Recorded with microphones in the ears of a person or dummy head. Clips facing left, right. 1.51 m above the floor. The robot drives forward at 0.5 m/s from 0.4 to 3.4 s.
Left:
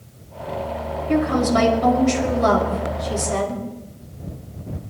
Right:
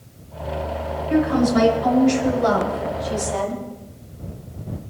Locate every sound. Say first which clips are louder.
1.1 s a woman speaking: right 1 dB; 65° left (ahead or behind), 6.5 m; by 3.6 s 75° left (ahead or behind), 6 m